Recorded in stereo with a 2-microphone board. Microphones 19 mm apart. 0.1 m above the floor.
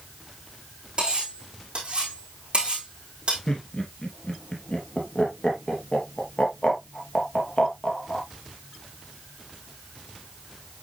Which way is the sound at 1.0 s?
45° right (ahead or behind).